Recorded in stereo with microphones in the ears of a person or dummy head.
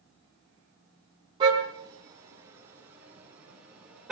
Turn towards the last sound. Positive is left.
turn(degrees=0)  # may be behind; listen again after turning